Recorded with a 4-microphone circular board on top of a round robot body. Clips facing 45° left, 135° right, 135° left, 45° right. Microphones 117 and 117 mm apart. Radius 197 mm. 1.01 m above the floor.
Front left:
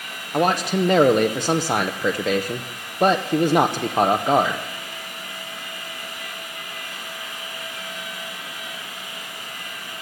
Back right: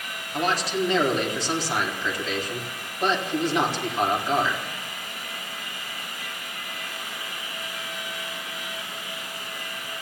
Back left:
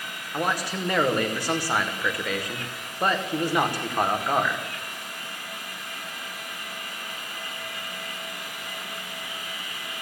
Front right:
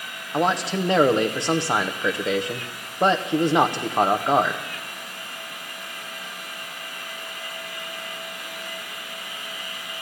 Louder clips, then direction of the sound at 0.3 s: Front left 5 dB, front right 5 dB; 20° left.